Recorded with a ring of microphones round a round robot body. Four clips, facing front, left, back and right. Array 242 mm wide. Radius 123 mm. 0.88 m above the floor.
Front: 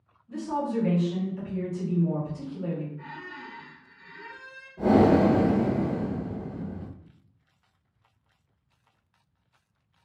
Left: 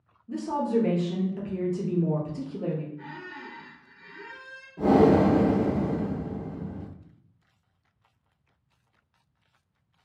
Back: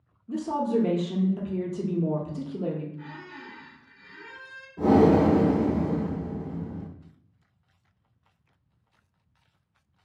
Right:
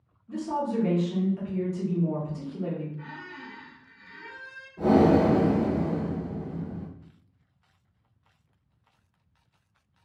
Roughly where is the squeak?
Behind left.